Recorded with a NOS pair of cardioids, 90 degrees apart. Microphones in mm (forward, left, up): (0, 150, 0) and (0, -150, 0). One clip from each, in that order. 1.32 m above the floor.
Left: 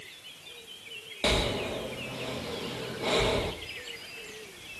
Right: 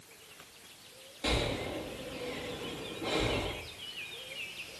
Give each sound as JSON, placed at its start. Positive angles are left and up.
{"t": 1.2, "sound": "breathing", "azimuth_deg": 60, "distance_m": 1.3}